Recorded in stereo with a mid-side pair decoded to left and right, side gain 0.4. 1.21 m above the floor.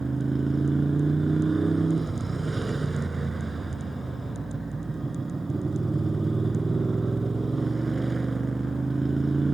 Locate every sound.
0.0 s a motorcycle: 25° right